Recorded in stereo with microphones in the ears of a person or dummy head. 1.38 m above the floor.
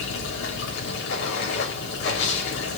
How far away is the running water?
About 3 m.